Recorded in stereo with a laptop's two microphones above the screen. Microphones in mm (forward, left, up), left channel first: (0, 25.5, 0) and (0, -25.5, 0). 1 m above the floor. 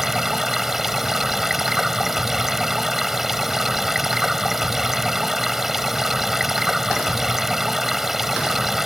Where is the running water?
5° right (ahead or behind).